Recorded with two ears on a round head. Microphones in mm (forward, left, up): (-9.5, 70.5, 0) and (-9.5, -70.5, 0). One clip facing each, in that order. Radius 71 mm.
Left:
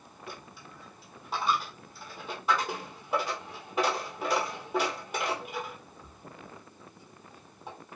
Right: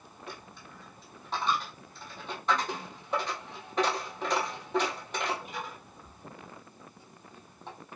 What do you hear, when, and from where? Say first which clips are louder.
0.3 s a dropped coin: left 1 dB; 5° left (ahead or behind), 1.3 m